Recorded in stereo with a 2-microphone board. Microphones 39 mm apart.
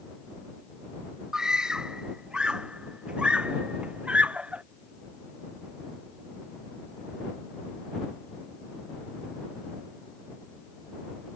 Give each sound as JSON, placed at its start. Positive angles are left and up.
{"t": 1.3, "sound": "a scream", "side_deg": -15}